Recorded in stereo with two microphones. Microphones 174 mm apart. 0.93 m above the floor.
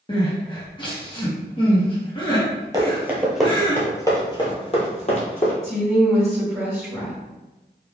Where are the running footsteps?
20° right (ahead or behind), 1.0 m; by 5.5 s 45° left (ahead or behind), 1.5 m.